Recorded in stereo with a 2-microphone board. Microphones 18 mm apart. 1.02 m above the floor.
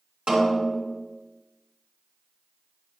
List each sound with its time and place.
0.3 s a snare drum: 85° right, 2.5 m